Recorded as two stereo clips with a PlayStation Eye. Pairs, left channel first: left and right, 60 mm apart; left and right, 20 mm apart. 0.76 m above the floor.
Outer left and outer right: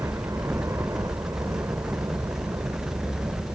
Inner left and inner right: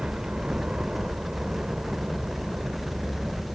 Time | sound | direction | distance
0.0 | a helicopter | 60° right (ahead or behind) | ?